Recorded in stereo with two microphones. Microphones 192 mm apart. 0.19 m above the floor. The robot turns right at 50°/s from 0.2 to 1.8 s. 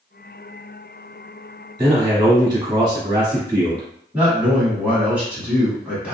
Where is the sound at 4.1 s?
5° right (ahead or behind), 1.4 m.